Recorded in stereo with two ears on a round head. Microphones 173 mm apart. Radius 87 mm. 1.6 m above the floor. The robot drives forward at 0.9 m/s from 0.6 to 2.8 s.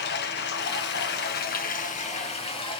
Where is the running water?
55° left (ahead or behind), 1.1 m; by 2.8 s 25° left (ahead or behind), 2 m.